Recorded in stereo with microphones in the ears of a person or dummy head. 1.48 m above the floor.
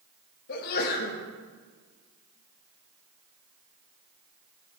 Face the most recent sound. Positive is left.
turn(degrees=50)  # may be behind; listen again after turning